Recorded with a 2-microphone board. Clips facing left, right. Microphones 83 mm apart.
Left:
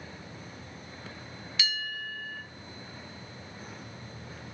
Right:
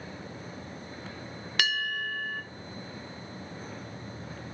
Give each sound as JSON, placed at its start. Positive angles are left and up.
{"t": 1.6, "sound": "a bell", "side_deg": -60, "distance_m": 0.6}